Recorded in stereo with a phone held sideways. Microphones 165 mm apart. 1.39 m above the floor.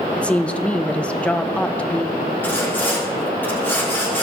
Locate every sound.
0.2 s a woman speaking: 5° left (ahead or behind), 0.6 m
2.4 s sawing: 10° left (ahead or behind), 3.5 m